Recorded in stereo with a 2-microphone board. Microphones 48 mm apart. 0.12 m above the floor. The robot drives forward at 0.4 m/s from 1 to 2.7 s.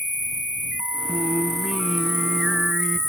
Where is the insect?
35° left (ahead or behind); by 3.1 s 65° left (ahead or behind).